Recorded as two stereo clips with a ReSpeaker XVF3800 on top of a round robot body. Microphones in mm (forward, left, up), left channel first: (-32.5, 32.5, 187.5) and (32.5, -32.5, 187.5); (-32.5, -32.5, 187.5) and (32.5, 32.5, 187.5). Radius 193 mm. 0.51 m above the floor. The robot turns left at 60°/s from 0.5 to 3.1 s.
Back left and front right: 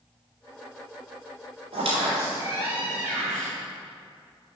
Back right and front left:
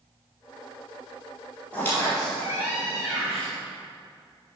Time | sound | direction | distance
1.7 | a squeak | 60° right | 2 m